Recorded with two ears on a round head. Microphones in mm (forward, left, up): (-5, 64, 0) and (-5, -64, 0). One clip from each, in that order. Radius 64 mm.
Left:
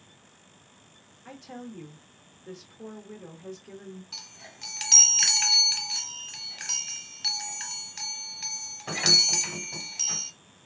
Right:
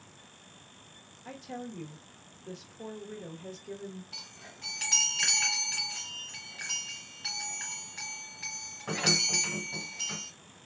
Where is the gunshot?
I don't hear a gunshot.